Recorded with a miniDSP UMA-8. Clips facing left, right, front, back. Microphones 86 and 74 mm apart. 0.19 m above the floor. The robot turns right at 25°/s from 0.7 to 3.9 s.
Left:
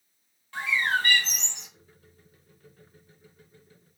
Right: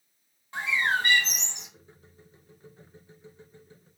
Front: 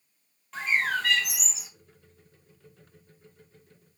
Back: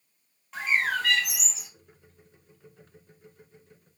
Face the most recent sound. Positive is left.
turn(degrees=-20)